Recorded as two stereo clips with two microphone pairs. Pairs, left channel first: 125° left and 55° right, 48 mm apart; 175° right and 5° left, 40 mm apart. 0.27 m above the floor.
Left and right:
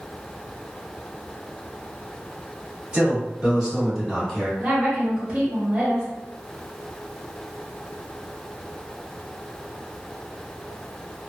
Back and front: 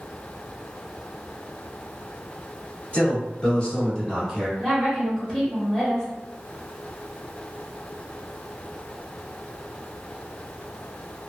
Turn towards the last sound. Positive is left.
turn(degrees=-105)